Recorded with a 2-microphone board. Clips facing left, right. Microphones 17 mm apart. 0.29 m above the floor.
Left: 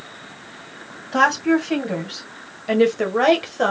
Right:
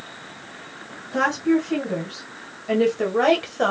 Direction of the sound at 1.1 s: 50° left (ahead or behind).